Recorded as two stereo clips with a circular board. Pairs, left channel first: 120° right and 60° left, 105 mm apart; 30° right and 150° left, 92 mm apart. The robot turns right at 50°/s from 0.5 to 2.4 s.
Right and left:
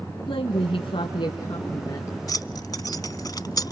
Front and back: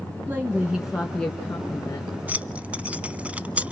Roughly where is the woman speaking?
Behind right.